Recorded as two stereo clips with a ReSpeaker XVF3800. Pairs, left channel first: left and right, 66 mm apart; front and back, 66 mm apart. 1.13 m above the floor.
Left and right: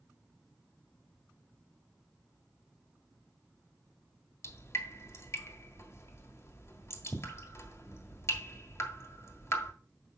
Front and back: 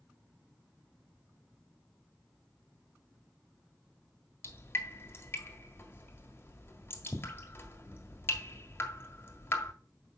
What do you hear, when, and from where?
4.4 s dripping: 50° left, 1.6 m